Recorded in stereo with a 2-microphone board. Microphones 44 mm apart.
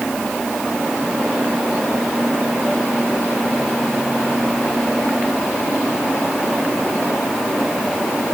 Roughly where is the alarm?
I don't hear an alarm.